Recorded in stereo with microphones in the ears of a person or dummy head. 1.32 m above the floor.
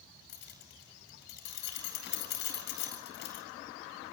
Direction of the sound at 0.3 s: 55° left (ahead or behind).